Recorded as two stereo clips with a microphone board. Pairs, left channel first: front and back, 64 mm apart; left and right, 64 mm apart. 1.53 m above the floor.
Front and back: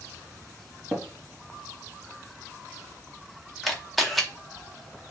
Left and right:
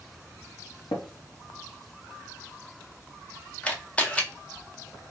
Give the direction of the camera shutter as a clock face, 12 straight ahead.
9 o'clock.